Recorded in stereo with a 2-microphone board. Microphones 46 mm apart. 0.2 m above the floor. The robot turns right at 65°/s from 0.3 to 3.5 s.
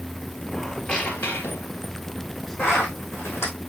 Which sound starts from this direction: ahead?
A squeak, at 0.5 s.